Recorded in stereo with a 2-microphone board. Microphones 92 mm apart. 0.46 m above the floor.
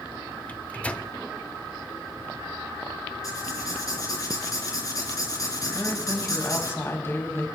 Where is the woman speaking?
30° left (ahead or behind), 3.5 m.